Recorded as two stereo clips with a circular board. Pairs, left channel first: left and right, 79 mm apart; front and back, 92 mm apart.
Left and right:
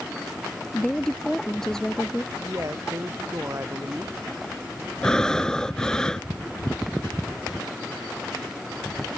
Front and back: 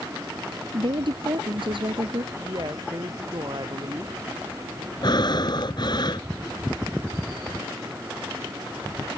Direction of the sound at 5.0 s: 10° left.